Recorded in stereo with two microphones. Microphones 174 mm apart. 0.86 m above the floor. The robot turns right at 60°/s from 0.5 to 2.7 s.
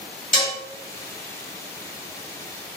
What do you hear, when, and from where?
0.3 s dishes clattering: 45° left (ahead or behind), 1.2 m